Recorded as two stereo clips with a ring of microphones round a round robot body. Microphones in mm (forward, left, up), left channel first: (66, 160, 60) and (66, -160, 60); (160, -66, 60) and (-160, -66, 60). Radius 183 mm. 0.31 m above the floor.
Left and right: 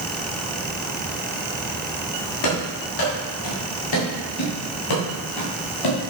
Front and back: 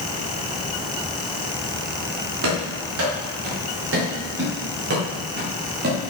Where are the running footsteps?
125° left, 6.5 m; by 6.1 s 115° left, 5 m.